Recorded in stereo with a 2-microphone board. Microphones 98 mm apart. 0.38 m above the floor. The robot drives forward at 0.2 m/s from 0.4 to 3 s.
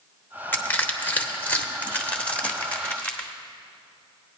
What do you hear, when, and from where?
0.5 s crushing: 20° left (ahead or behind), 0.9 m; by 3.3 s 15° left (ahead or behind), 1.1 m